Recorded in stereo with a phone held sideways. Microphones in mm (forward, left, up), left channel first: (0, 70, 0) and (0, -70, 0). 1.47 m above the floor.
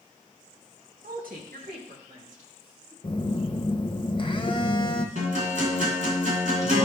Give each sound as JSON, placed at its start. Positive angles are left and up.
{"t": 1.0, "sound": "a woman speaking", "side_deg": -85, "distance_m": 1.3}
{"t": 3.0, "sound": "a phone buzzing", "side_deg": 35, "distance_m": 0.8}
{"t": 5.2, "sound": "a guitar", "side_deg": -60, "distance_m": 3.0}